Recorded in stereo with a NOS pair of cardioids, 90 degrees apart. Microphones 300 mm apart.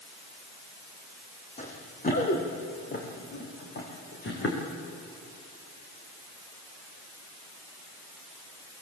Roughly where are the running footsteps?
Ahead left.